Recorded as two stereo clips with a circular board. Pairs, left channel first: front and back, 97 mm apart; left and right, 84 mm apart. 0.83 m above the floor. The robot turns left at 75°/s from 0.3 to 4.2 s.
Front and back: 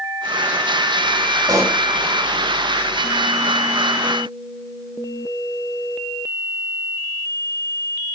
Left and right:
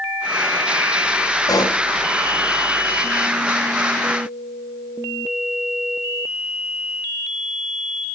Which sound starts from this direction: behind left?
A pop, at 1.5 s.